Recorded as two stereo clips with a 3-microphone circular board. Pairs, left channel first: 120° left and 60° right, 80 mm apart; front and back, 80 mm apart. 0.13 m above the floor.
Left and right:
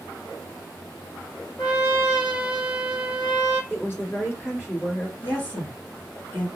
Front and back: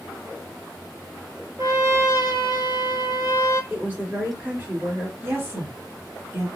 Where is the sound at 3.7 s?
145° left, 1.8 m.